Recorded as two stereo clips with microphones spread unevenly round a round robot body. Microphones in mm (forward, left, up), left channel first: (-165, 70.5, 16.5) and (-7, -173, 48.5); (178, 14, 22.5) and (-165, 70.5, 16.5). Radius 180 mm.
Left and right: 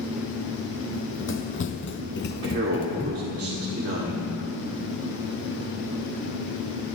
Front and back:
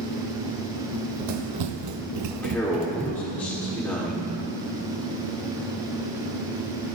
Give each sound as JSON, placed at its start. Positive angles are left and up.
{"t": 0.9, "sound": "running footsteps", "azimuth_deg": 170, "distance_m": 2.0}
{"t": 2.3, "sound": "a man speaking", "azimuth_deg": -95, "distance_m": 1.8}